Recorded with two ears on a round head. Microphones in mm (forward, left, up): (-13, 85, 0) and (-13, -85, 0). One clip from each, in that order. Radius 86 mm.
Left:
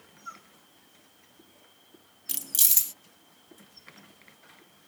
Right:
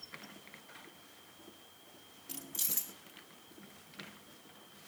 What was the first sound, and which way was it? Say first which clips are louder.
Keys jangling: left 12 dB; 70° left (ahead or behind).